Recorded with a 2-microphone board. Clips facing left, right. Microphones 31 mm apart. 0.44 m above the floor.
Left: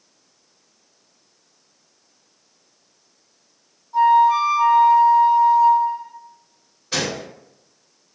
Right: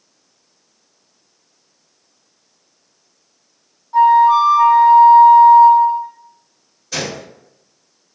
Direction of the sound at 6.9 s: 30° left (ahead or behind).